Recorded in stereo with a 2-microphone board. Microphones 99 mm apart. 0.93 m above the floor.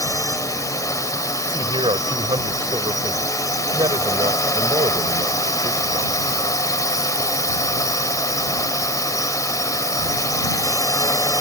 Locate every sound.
0.0 s a drone: 35° left (ahead or behind)
1.5 s a man speaking: 65° right (ahead or behind)